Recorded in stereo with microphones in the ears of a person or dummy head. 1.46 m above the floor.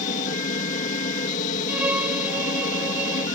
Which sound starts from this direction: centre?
A violin, at 1.7 s.